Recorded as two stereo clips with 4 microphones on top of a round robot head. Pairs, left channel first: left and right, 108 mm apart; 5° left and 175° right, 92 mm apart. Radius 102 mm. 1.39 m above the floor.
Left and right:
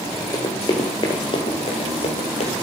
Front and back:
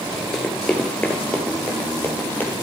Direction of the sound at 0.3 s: 80° left.